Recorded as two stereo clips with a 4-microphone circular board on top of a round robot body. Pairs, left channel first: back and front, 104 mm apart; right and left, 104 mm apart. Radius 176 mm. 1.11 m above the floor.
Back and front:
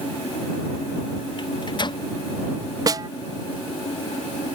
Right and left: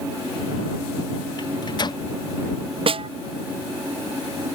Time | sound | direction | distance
1.4 | a microwave | 135° right | ?
2.9 | a snare drum | 55° left | ?